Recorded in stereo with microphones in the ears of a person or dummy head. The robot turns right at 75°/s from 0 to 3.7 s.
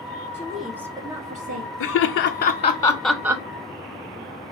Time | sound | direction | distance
0.3 | a woman speaking | 160° left | 0.8 m
1.8 | laughter | 70° left (ahead or behind) | 0.6 m